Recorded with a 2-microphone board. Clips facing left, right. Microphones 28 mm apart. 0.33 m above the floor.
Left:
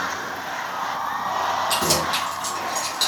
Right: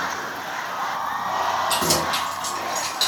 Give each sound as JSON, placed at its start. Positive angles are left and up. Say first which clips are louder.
{"t": 1.7, "sound": "keys jangling", "louder": "even", "side_deg": 5, "distance_m": 2.5}